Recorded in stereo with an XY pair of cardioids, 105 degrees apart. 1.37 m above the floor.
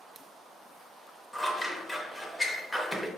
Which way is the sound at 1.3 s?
10° left.